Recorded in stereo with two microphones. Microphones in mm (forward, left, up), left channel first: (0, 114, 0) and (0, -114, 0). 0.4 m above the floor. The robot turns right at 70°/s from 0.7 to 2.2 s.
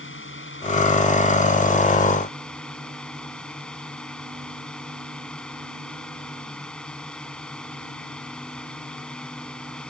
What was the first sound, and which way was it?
A drone, 70° left.